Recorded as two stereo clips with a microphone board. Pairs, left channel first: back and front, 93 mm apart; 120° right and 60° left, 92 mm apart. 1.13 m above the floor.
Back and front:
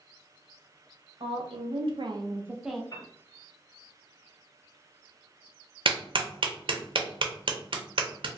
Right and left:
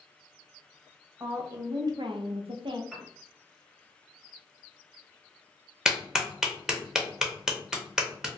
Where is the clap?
25° right, 0.6 m.